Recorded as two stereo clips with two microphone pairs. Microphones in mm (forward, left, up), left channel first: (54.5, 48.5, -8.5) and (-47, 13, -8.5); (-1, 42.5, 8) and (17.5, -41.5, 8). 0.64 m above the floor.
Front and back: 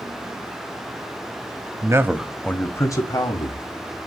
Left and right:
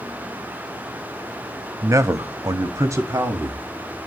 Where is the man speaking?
120° right, 0.8 m; by 3.7 s 15° right, 1.6 m.